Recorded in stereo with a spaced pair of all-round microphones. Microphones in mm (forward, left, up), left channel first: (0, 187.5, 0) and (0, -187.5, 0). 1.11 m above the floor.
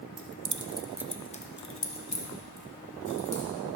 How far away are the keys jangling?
About 0.7 m.